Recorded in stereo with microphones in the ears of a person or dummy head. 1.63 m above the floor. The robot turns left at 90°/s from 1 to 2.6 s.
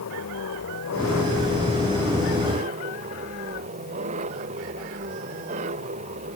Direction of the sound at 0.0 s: 105° left.